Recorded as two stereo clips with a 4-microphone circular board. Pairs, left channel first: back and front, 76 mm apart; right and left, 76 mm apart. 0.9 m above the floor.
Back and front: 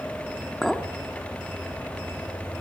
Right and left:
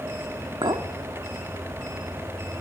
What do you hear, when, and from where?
0.6 s a clink: 90° left, 1.3 m